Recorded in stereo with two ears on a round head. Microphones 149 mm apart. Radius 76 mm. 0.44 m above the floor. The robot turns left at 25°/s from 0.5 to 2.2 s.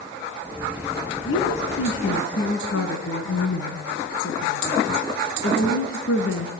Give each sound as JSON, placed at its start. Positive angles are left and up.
{"t": 1.2, "sound": "a woman speaking", "side_deg": 75, "distance_m": 4.0}